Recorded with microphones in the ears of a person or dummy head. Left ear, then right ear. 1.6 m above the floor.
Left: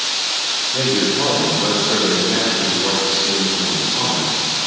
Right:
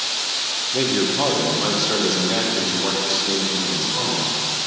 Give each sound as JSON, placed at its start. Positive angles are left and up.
{"t": 0.7, "sound": "a man speaking", "side_deg": -70, "distance_m": 1.2}